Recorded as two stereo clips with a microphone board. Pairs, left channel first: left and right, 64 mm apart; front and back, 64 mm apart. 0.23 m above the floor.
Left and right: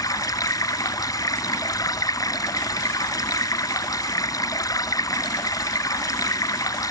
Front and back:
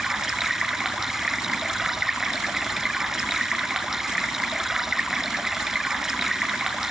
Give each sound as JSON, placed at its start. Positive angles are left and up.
{"t": 0.0, "sound": "running water", "azimuth_deg": 100, "distance_m": 1.6}